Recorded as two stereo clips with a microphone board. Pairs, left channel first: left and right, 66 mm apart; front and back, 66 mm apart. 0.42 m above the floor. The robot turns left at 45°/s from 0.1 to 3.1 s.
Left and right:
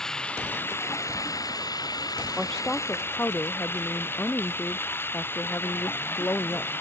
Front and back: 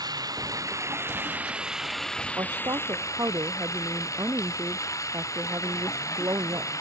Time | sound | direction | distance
0.0 | running water | 170° left | ?
2.4 | a woman speaking | straight behind | ?